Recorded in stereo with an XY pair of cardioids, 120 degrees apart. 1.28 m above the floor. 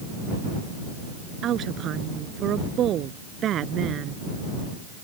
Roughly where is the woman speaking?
Ahead right.